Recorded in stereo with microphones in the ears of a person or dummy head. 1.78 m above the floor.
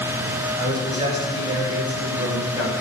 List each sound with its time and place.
0.6 s a man speaking: 30° right (ahead or behind), 7.5 m; by 2.7 s 25° right (ahead or behind), 7.5 m